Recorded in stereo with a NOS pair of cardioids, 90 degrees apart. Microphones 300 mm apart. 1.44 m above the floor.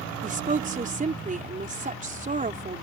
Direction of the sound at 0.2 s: 25° right.